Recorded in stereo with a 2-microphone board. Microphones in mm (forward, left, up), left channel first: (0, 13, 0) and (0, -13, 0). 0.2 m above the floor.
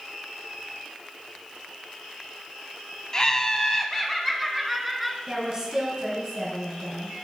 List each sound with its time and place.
3.1 s laughter: 25° left (ahead or behind), 1.0 m; by 5.2 s centre (ahead or behind), 1.7 m
5.3 s a woman speaking: 20° right (ahead or behind), 3 m